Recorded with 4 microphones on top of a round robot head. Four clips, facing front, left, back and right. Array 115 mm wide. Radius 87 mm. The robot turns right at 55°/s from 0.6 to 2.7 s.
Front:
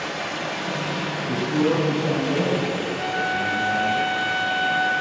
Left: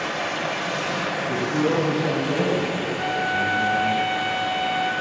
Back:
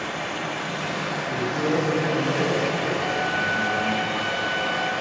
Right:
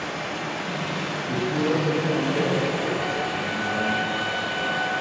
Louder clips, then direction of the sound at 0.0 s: Left 4 dB, front 1 dB; 75° left.